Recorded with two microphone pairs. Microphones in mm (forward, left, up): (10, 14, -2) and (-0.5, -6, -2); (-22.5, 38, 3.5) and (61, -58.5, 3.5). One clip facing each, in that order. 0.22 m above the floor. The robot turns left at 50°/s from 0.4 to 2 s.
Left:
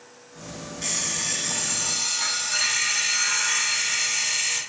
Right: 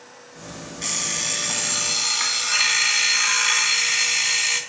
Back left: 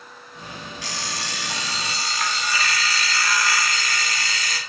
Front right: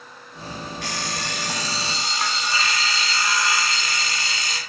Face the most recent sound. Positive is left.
turn(degrees=-105)